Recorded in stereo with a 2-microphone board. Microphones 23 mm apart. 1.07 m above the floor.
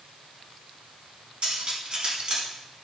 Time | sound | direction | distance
1.4 | cutlery clinking | 60° right (ahead or behind) | 5.5 m